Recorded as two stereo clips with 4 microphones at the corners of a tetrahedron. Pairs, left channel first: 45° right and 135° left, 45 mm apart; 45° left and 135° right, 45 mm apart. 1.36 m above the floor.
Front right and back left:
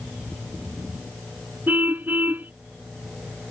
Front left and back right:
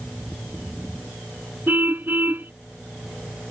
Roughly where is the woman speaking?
No woman speaking in this recording.